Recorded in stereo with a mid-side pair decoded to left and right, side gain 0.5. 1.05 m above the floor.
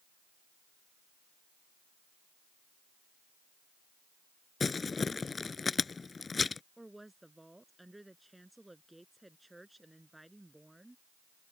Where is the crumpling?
25° left.